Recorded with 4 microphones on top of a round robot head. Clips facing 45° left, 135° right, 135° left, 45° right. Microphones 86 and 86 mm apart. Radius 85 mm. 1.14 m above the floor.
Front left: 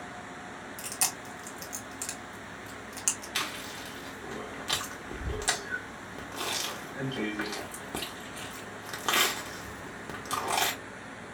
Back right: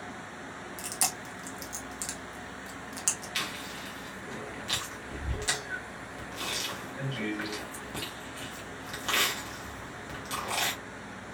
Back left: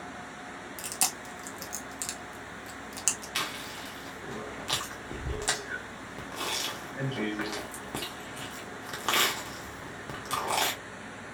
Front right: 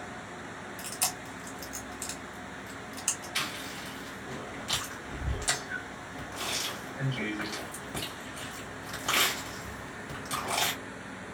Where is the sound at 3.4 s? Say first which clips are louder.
Front left 2 dB, back left 1 dB; 90° left, 0.7 m.